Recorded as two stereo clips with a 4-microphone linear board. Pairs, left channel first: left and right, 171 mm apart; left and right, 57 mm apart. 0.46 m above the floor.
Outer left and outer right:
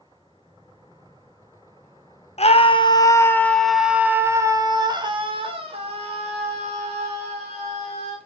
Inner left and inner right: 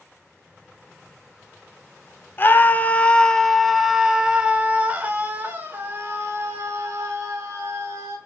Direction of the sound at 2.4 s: 40° left (ahead or behind).